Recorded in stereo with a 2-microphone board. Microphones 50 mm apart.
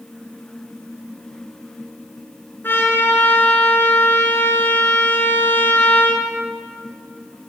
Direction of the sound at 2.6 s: 45° left (ahead or behind).